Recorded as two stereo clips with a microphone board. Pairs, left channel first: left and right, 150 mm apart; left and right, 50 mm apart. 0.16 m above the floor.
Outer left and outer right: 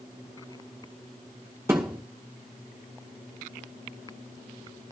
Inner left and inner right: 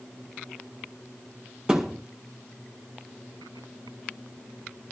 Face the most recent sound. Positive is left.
turn(degrees=-15)  # may be behind; listen again after turning